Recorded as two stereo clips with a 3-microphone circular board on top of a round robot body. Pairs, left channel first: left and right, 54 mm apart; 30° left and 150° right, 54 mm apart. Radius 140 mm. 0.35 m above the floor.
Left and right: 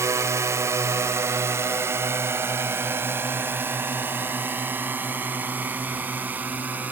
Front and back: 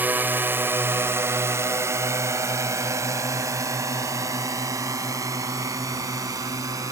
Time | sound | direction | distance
0.0 | a drone | 100° right | ?